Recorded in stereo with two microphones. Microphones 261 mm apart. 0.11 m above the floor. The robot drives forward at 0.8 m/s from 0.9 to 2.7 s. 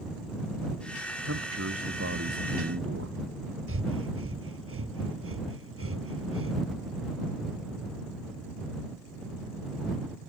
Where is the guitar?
I don't hear a guitar.